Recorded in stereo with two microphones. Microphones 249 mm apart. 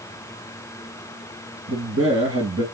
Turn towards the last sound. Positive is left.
turn(degrees=-65)  # may be behind; listen again after turning